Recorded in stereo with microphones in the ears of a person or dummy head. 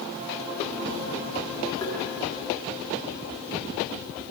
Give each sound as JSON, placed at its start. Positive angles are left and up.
{"t": 1.8, "sound": "tapping", "side_deg": 25, "distance_m": 2.0}